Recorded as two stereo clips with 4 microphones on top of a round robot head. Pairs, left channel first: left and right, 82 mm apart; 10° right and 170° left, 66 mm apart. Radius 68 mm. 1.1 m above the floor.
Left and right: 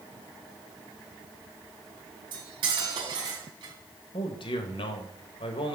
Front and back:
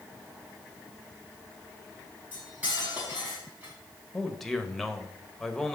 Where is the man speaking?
80° left, 1.2 m.